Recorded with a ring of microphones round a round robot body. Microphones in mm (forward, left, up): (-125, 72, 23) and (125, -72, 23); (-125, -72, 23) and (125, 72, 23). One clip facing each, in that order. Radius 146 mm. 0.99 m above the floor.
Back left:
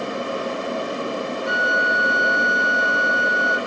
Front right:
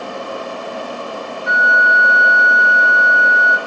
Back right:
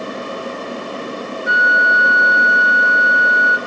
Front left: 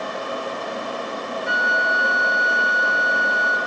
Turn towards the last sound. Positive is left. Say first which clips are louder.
# even, back right 3 dB
turn(degrees=90)